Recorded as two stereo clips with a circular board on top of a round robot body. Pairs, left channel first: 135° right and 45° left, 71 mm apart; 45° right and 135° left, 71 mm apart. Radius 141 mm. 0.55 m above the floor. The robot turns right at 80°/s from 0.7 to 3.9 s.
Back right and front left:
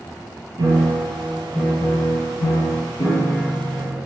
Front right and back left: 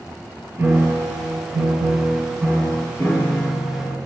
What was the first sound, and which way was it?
A piano, 70° left.